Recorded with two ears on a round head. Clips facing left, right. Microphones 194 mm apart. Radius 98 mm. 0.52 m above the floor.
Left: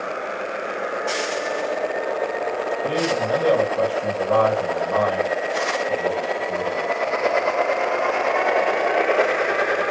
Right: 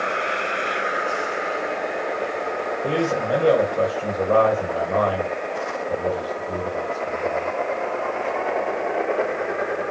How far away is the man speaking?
About 2.5 m.